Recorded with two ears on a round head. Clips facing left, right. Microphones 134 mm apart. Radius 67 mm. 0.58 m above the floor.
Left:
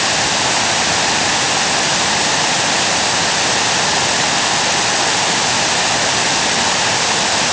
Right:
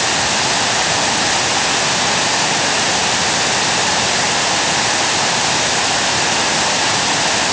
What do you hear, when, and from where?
Only background noise.